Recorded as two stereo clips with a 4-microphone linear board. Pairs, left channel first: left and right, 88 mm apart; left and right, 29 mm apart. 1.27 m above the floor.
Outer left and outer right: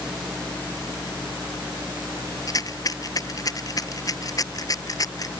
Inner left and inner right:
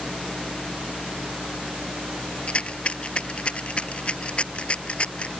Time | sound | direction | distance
2.5 | a rattle | 40° left (ahead or behind) | ?